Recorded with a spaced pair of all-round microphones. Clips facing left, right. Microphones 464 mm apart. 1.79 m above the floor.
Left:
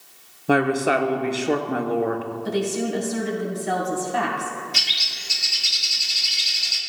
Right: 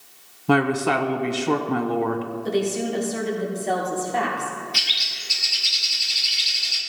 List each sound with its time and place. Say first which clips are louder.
0.5 s a woman speaking: even; 20° right (ahead or behind), 0.8 m
2.5 s a woman speaking: right 1 dB; 30° left (ahead or behind), 2.5 m
4.7 s a bird: even; 70° left (ahead or behind), 1.2 m